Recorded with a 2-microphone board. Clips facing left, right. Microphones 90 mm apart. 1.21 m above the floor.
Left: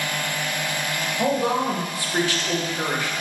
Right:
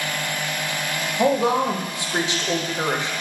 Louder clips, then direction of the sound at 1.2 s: Right 3 dB; 20° right (ahead or behind).